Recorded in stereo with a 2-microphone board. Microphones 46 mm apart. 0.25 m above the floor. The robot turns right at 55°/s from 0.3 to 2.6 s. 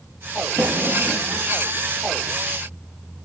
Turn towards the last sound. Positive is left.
turn(degrees=55)